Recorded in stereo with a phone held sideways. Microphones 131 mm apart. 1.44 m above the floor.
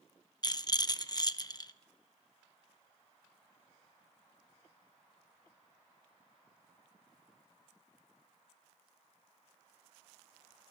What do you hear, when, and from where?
0.4 s a rattle: 35° left (ahead or behind), 0.8 m